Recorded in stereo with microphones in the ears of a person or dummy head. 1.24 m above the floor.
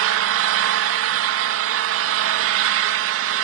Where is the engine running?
70° right (ahead or behind), 0.7 m.